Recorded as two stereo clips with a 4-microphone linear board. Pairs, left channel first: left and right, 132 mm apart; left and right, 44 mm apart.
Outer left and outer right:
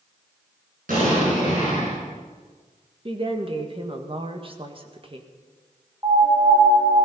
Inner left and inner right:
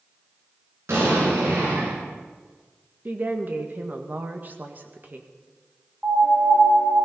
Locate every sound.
0.9 s an explosion: 85° right, 8.5 m
3.0 s a woman speaking: 40° right (ahead or behind), 1.7 m
6.0 s a piano: 35° right (ahead or behind), 2.5 m